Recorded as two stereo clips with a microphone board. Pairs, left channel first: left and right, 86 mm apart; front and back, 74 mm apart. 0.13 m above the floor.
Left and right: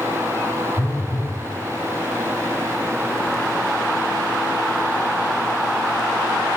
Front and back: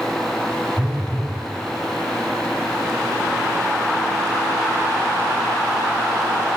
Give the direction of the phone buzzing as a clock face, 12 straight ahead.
8 o'clock.